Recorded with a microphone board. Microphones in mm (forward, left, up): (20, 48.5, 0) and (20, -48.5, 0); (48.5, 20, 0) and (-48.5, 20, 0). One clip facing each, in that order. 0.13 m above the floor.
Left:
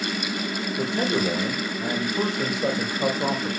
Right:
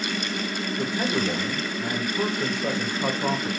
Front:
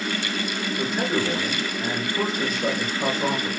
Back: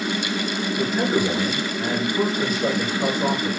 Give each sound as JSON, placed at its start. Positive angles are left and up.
{"t": 0.8, "sound": "a man speaking", "azimuth_deg": 95, "distance_m": 4.0}